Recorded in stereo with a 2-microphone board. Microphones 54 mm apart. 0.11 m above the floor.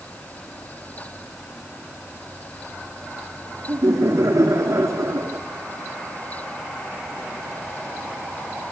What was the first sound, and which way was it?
Laughter, 65° right (ahead or behind).